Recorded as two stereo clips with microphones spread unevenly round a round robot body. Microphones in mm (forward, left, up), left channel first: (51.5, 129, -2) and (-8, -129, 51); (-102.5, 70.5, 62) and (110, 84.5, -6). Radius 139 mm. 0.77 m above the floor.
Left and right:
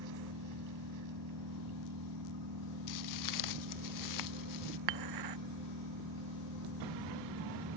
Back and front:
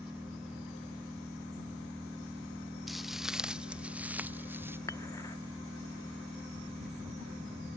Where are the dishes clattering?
95° right.